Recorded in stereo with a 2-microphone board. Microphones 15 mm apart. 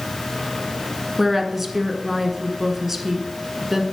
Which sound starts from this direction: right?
A woman speaking, at 1.2 s.